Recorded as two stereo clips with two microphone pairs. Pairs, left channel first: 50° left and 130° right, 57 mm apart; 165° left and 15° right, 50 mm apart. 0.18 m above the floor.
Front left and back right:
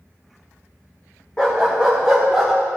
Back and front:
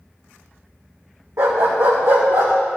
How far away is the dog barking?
About 3 m.